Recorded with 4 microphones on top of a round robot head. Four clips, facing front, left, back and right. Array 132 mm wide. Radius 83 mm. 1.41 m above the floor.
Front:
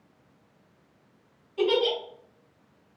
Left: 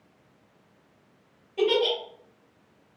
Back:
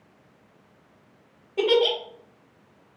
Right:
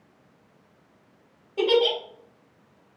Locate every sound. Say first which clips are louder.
1.6 s a giggle: right 2 dB, back 3 dB; 150° right, 2.5 m